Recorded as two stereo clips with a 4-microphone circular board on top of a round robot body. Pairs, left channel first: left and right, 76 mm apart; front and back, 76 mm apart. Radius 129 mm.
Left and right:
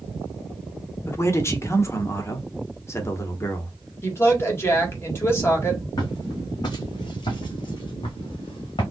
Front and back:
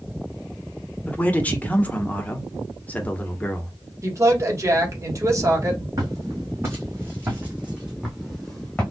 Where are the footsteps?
130° left, 1.9 m; by 8.8 s 80° left, 1.3 m.